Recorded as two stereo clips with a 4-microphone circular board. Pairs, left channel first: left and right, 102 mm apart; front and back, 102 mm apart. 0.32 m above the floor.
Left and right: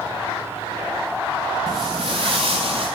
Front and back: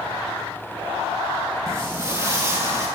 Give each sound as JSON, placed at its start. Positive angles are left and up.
{"t": 1.7, "sound": "footsteps", "azimuth_deg": -120, "distance_m": 1.2}